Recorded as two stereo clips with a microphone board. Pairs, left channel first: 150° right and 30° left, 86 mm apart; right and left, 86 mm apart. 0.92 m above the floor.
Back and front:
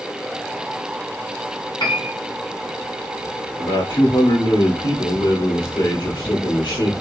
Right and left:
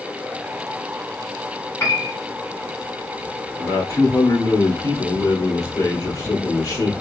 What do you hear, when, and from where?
1.8 s a piano: 145° right, 2 m
3.6 s a man speaking: 135° right, 2.5 m